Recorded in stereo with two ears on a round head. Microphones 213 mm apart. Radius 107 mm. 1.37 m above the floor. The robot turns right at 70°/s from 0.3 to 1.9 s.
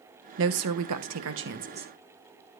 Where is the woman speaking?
125° right, 1.2 m; by 1.9 s 20° right, 1.2 m.